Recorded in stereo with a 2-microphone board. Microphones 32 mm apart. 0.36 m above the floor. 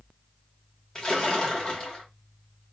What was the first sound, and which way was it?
A splash, 25° left (ahead or behind).